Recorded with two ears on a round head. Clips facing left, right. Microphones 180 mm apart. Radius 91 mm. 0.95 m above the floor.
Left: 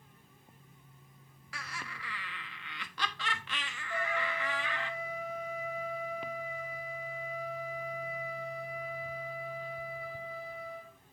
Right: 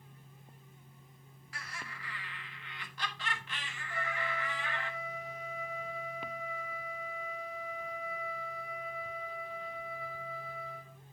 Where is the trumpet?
30° left (ahead or behind), 3 m.